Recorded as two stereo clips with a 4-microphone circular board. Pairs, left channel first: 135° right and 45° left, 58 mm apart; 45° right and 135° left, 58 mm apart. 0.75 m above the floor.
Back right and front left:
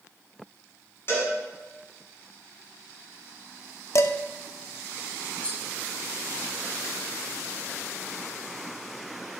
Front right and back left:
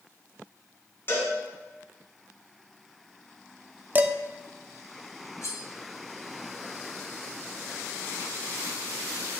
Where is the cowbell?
95° right, 2.5 m.